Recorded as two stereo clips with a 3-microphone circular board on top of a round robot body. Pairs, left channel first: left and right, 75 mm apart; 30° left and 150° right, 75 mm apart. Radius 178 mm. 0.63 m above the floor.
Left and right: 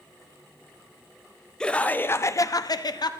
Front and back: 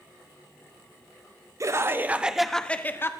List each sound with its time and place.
1.6 s laughter: 170° left, 1.2 m; by 3.1 s 85° left, 1.2 m